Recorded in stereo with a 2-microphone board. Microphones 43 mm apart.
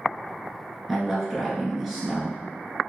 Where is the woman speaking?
10° right (ahead or behind), 1.4 m.